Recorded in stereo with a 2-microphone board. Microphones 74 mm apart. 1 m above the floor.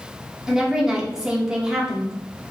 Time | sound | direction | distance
0.5 | a woman speaking | 10° right (ahead or behind) | 1.5 m